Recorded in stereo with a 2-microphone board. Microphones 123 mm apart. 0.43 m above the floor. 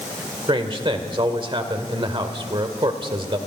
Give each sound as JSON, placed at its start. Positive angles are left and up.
{"t": 0.5, "sound": "a man speaking", "side_deg": -40, "distance_m": 1.6}